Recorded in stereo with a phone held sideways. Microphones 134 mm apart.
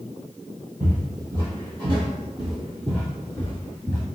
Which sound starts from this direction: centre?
Footsteps, at 0.8 s.